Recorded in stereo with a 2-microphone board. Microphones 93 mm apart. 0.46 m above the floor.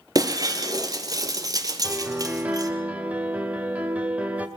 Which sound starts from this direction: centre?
A piano, at 1.8 s.